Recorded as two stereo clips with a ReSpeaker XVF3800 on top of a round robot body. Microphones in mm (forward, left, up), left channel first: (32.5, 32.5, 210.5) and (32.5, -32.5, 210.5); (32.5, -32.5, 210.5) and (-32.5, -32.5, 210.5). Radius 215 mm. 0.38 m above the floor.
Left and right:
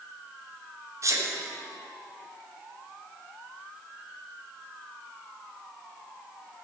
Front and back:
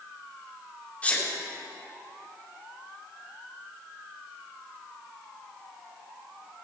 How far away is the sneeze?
About 1.8 m.